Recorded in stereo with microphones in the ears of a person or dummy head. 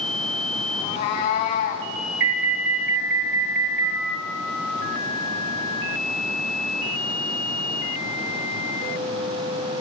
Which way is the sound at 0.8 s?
40° left (ahead or behind).